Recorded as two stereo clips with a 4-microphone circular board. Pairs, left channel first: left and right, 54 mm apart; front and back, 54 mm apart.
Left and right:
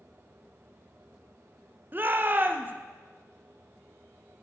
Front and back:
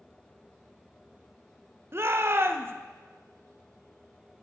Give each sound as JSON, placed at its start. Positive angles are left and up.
{"t": 1.9, "sound": "a shout", "azimuth_deg": -140, "distance_m": 0.7}